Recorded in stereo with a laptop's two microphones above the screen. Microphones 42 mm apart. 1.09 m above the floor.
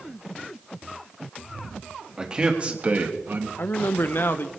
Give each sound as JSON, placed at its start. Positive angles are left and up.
{"t": 2.2, "sound": "a man speaking", "side_deg": -20, "distance_m": 1.8}
{"t": 3.6, "sound": "a man speaking", "side_deg": 60, "distance_m": 0.7}